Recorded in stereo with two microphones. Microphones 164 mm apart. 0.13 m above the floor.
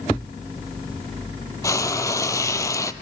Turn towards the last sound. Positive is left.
turn(degrees=20)  # may be behind; listen again after turning